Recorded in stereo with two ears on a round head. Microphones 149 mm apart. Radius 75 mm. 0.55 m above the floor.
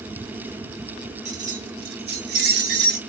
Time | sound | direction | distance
1.2 | keys jangling | 45° right (ahead or behind) | 1.0 m